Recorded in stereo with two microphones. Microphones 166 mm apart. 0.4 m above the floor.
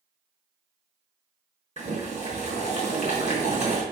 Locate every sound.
1.8 s boiling: 45° right (ahead or behind), 4.5 m